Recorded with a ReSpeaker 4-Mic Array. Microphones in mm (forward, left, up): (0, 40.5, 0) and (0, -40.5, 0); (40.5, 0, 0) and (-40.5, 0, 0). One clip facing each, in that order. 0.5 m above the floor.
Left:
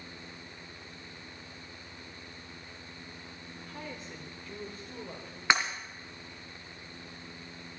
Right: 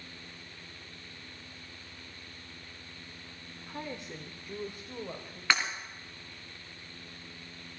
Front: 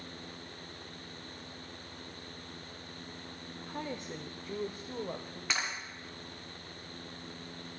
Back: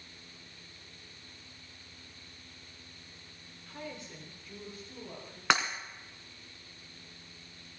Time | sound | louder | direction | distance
3.7 | a woman speaking | right 4 dB, front 4 dB | 30° right | 0.9 m
5.5 | breaking glass | left 2 dB, back 8 dB | 160° left | 2 m